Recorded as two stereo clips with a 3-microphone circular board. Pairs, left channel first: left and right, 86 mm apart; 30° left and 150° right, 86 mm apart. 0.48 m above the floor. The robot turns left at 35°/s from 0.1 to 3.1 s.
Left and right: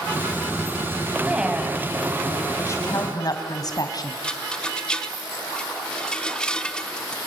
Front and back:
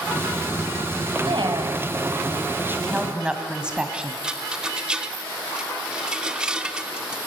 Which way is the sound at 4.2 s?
150° left.